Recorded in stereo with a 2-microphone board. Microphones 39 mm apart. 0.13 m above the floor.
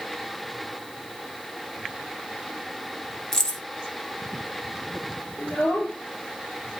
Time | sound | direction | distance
3.3 | keys jangling | 15° left (ahead or behind) | 1.1 m
5.4 | a child speaking | 25° left (ahead or behind) | 1.9 m